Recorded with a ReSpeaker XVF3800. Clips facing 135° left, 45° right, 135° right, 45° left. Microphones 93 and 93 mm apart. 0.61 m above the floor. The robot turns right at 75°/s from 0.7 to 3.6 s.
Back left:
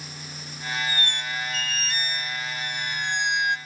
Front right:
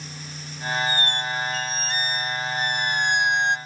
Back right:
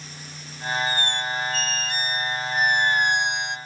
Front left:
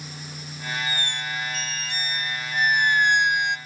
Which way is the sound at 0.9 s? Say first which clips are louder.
Front right 4 dB, back right 4 dB; straight behind.